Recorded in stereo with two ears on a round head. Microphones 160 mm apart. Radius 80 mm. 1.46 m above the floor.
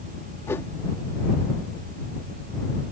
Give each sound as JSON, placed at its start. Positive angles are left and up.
{"t": 0.5, "sound": "a whoosh", "side_deg": 15}